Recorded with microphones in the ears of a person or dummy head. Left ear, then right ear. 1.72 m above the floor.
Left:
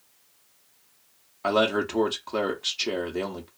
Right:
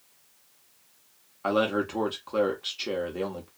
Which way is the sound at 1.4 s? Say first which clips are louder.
Left 2 dB; 10° left (ahead or behind).